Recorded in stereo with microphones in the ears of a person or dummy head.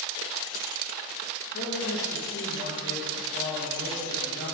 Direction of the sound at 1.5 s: 65° left (ahead or behind).